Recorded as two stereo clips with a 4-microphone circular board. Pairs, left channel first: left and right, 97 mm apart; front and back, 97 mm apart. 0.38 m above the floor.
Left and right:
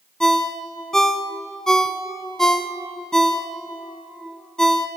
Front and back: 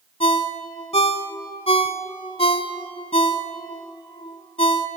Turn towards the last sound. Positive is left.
turn(degrees=5)